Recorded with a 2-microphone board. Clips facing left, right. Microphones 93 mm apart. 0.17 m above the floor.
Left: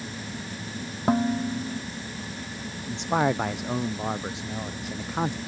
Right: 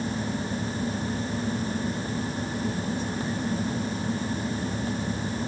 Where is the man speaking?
75° left (ahead or behind).